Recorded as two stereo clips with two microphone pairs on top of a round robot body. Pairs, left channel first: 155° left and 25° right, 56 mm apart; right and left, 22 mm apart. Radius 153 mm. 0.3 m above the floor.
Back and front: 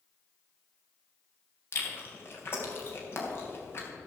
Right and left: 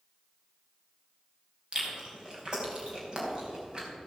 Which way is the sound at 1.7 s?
135° left.